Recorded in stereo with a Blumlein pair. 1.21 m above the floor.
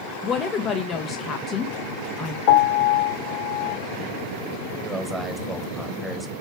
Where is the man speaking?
5° right, 1.3 m.